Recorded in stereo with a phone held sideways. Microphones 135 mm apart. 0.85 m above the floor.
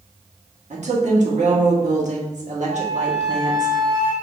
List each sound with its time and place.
0.7 s a woman speaking: 60° right (ahead or behind), 1.2 m
2.7 s a flute: 70° right (ahead or behind), 1.7 m